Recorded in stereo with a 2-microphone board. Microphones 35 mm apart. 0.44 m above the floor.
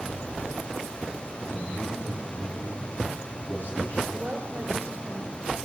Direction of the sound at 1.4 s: 55° left (ahead or behind).